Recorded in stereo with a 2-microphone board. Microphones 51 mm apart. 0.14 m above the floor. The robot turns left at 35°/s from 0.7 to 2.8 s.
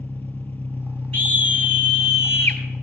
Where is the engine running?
135° left, 1.0 m; by 2.9 s 60° left, 1.0 m.